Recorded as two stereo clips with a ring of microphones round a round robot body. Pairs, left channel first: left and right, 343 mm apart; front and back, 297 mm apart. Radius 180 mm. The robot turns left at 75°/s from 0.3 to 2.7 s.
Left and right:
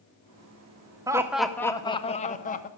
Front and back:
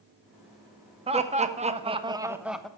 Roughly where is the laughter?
Behind right.